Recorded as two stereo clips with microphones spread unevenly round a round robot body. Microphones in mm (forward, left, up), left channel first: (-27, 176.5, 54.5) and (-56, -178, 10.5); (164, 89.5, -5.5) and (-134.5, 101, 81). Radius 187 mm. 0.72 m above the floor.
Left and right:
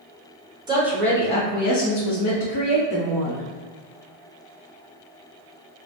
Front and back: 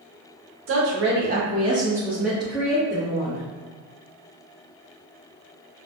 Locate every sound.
0.7 s a woman speaking: 145° right, 0.8 m; by 3.5 s 65° left, 1.5 m